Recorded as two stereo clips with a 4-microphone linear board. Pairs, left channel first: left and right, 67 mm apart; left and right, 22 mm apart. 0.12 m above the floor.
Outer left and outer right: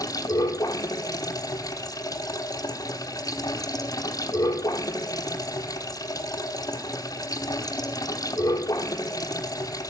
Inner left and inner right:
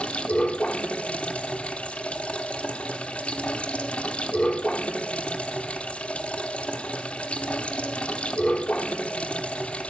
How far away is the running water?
About 1.1 m.